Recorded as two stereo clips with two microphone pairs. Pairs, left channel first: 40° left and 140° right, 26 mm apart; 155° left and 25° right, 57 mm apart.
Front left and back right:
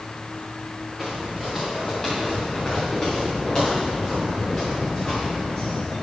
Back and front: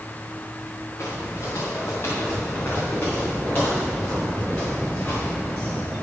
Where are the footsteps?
120° left, 3.5 m; by 6.0 s 95° left, 10.5 m.